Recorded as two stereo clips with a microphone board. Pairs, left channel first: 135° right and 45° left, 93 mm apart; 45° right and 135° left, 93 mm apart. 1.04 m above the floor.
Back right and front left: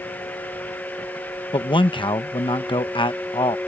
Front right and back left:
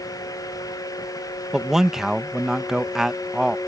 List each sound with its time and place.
1.5 s a man speaking: 140° right